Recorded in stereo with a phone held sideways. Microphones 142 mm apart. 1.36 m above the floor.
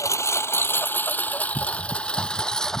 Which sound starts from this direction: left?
A lawn mower, at 0.0 s.